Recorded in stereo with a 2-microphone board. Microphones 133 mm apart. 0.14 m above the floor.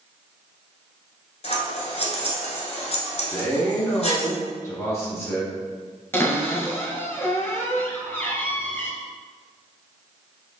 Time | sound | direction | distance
1.4 | scissors | 55° left (ahead or behind) | 1.0 m
3.3 | a man speaking | 20° left (ahead or behind) | 1.2 m
6.1 | a cupboard door | 20° left (ahead or behind) | 0.8 m